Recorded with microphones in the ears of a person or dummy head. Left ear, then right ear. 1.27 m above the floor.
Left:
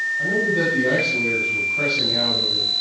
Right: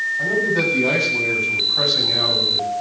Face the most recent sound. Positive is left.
turn(degrees=-60)  # may be behind; listen again after turning